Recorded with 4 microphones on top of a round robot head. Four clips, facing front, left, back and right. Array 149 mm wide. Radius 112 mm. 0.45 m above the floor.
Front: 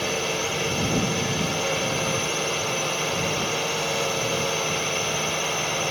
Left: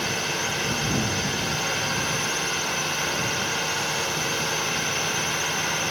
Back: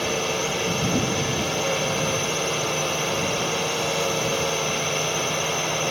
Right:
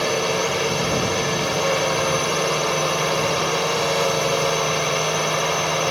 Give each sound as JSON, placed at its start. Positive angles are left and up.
{"t": 0.0, "sound": "a drone", "azimuth_deg": -95}